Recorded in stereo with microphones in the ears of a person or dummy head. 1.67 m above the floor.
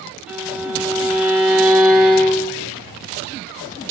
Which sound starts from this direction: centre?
A violin, at 0.3 s.